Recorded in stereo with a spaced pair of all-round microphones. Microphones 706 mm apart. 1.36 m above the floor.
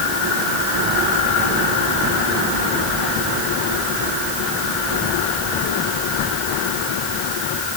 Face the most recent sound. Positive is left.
No sound to turn to.